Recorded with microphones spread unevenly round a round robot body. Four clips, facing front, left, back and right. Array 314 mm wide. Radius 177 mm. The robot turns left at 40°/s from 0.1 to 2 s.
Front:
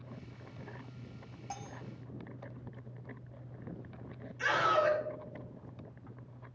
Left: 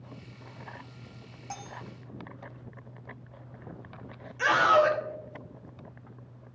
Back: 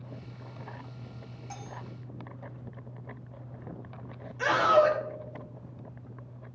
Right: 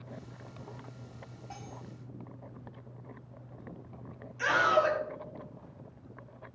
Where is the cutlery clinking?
50° left, 0.6 m; by 1.8 s 40° left, 0.6 m.